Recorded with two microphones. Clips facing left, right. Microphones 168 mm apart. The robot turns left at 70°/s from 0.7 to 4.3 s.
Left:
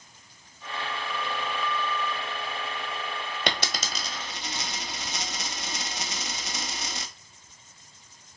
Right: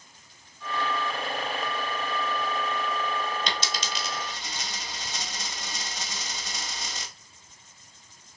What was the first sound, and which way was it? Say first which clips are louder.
A dropped coin: left 2 dB; 75° left (ahead or behind).